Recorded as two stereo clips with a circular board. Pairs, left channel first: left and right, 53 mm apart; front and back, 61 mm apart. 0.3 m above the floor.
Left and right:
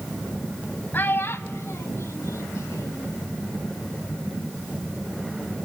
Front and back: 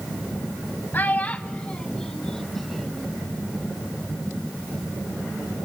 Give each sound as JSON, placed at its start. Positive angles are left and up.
{"t": 0.9, "sound": "a child speaking", "azimuth_deg": 50, "distance_m": 0.8}